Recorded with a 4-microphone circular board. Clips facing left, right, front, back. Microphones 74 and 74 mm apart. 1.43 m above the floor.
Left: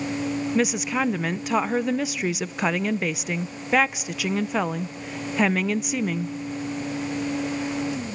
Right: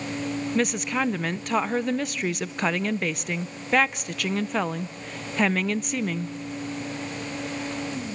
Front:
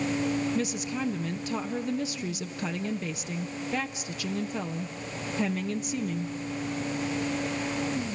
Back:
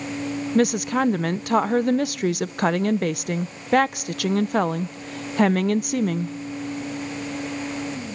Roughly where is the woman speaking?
Behind.